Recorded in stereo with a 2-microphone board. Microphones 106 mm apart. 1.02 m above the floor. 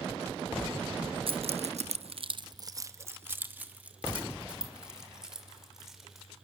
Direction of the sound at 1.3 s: 55° right (ahead or behind).